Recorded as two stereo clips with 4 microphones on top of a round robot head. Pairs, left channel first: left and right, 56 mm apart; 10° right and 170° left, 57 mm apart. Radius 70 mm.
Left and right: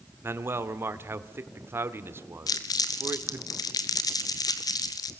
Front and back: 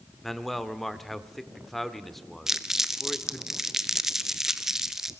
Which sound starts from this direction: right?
A man speaking, at 0.2 s.